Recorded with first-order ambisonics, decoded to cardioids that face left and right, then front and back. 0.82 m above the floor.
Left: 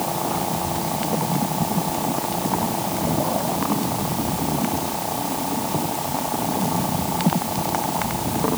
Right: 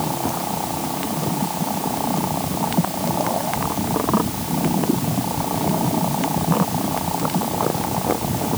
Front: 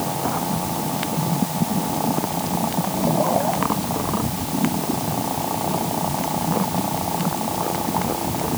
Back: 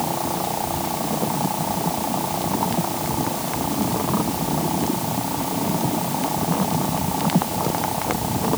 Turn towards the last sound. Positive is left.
No sound to turn to.